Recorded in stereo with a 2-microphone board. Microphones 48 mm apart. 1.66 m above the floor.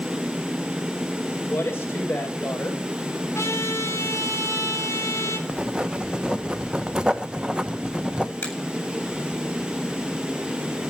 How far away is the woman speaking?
About 6.5 m.